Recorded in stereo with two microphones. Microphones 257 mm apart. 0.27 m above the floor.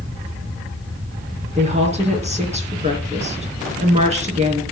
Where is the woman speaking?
25° right (ahead or behind), 3.5 m.